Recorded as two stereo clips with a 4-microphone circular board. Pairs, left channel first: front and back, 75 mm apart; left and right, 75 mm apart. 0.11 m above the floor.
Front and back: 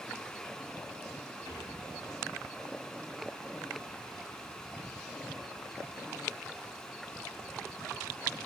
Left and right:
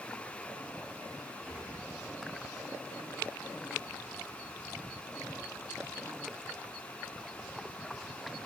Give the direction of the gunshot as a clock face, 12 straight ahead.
5 o'clock.